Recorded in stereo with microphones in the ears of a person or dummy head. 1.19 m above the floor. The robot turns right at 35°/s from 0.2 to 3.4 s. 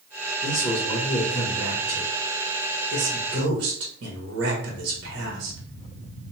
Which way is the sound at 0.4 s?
135° left.